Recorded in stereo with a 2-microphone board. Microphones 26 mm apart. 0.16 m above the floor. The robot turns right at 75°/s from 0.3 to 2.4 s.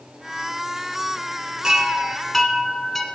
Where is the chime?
45° right, 0.6 m; by 3.0 s 15° left, 0.6 m.